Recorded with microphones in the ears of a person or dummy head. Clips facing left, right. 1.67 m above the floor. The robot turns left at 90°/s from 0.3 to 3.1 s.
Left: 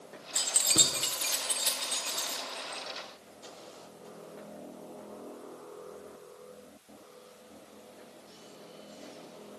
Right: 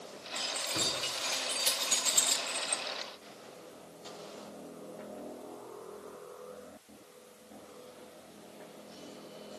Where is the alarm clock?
I don't hear an alarm clock.